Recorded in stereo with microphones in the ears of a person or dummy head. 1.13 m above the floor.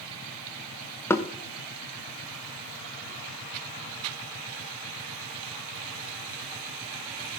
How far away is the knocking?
About 0.8 m.